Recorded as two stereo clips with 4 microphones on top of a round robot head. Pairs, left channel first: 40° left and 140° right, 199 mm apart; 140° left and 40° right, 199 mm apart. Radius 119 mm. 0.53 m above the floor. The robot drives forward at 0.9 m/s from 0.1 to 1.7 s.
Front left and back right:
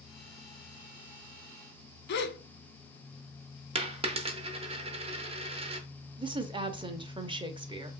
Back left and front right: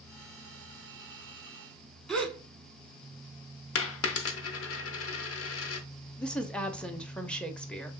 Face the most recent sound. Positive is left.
turn(degrees=-140)